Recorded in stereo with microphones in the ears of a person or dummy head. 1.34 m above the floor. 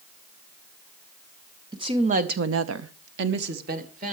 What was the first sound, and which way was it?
A woman speaking, 25° right (ahead or behind).